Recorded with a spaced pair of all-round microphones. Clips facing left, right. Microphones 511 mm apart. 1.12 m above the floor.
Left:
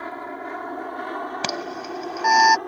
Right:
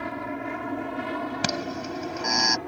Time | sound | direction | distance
0.0 | an aircraft | 50° right (ahead or behind) | ?
1.4 | an alarm | 30° right (ahead or behind) | ?